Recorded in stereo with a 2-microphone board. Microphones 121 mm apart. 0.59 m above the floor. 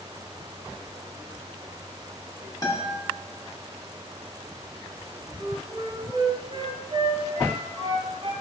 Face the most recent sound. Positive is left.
turn(degrees=-70)  # may be behind; listen again after turning